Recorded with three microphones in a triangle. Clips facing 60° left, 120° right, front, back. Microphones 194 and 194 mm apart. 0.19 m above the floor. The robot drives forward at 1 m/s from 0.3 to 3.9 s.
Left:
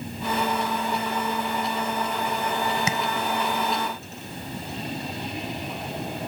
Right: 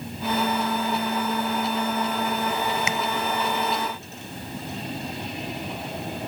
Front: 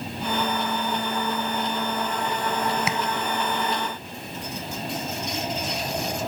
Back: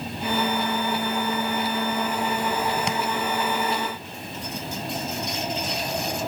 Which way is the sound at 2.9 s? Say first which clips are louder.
Left 1 dB, back 1 dB; 80° left.